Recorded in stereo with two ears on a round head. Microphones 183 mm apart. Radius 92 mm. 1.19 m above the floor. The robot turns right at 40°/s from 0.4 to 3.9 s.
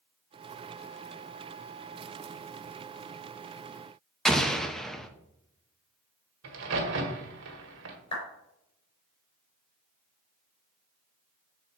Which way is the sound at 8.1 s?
30° left (ahead or behind).